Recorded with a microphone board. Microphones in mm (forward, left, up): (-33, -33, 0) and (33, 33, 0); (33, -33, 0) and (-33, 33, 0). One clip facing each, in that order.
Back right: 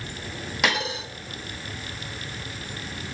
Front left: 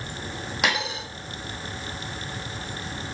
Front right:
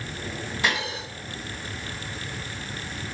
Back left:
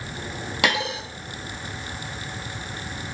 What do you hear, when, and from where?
0.6 s a dropped coin: 135° left, 1.4 m